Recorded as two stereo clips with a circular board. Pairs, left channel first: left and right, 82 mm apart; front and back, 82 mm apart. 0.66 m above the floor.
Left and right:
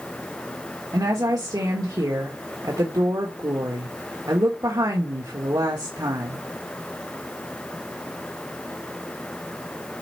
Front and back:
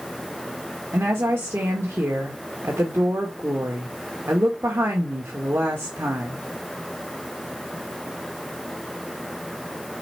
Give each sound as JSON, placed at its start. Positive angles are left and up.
{"t": 0.9, "sound": "a woman speaking", "azimuth_deg": -125, "distance_m": 1.8}